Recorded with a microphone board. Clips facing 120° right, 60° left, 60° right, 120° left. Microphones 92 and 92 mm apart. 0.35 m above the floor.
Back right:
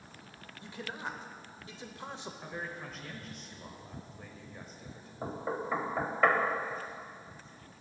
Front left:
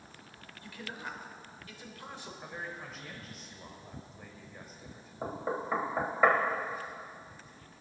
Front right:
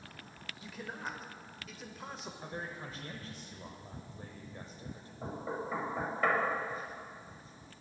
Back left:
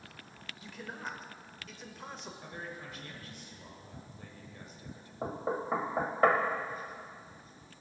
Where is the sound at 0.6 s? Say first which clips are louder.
Back right 2 dB, even; 145° right, 0.9 m.